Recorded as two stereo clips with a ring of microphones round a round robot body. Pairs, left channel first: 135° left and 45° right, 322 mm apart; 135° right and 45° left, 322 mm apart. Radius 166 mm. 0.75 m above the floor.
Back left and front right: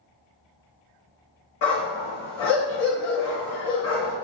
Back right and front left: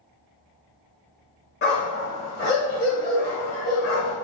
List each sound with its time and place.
1.6 s a dog barking: 165° left, 1.2 m